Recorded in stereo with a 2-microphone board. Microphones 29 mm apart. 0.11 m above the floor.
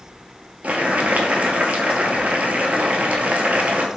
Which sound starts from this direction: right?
Boiling, at 0.6 s.